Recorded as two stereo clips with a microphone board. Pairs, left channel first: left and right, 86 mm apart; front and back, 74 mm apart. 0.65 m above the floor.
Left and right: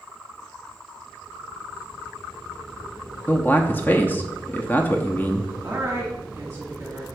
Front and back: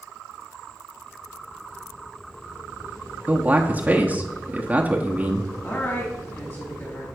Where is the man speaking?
135° left, 0.9 m.